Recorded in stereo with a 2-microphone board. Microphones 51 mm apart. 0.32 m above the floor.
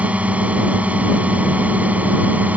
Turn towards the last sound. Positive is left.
turn(degrees=-30)  # may be behind; listen again after turning